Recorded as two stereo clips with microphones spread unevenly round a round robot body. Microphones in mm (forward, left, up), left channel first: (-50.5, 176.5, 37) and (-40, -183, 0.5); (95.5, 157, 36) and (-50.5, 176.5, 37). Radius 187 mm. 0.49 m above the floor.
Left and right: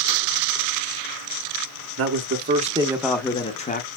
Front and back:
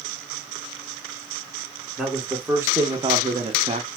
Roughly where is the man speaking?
Right.